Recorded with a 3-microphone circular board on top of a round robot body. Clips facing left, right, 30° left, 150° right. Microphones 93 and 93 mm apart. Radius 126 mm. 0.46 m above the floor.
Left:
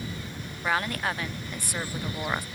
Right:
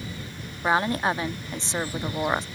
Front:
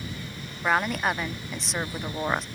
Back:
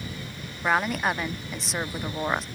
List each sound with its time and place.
0.6 s a woman speaking: 60° right